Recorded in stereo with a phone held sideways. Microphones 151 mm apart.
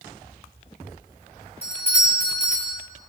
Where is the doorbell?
70° right (ahead or behind), 2 m.